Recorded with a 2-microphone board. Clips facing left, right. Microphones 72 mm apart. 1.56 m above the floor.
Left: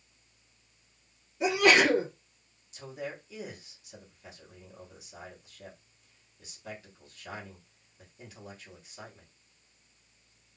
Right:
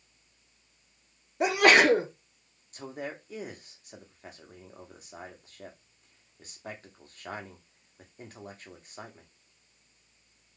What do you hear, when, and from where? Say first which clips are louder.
1.4 s a sneeze: right 2 dB; 60° right (ahead or behind), 1.0 m
2.7 s a man speaking: right 1 dB; 45° right (ahead or behind), 1.0 m